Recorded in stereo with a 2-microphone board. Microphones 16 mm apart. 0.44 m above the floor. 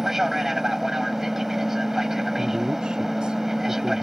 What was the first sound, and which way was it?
An aircraft, 20° right (ahead or behind).